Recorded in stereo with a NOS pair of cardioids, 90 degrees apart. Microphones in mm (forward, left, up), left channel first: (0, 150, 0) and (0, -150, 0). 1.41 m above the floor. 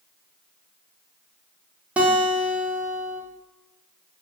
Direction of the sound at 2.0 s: 5° right.